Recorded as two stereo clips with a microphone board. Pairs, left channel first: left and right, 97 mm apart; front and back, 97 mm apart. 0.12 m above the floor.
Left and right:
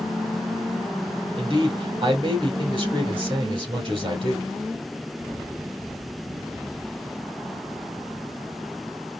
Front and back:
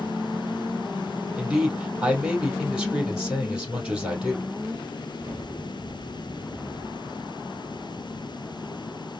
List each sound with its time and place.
1.4 s a man speaking: 100° right, 2.5 m